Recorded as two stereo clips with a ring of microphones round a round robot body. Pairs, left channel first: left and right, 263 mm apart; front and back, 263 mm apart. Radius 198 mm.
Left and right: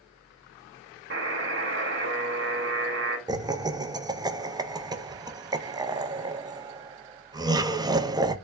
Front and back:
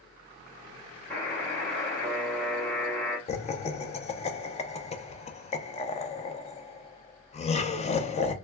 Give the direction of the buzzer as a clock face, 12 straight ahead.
3 o'clock.